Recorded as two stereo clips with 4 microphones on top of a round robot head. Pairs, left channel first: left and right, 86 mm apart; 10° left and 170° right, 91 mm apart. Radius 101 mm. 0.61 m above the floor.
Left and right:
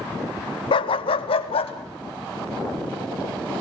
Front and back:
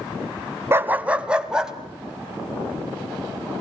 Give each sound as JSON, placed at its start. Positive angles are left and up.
{"t": 0.7, "sound": "a dog barking", "azimuth_deg": 125, "distance_m": 0.7}